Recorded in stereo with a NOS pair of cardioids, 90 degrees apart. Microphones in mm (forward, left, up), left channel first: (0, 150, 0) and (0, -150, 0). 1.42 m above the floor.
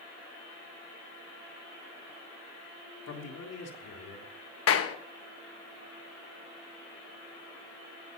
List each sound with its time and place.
3.1 s a man speaking: 55° left, 3.5 m
4.7 s a clap: 50° left, 1.3 m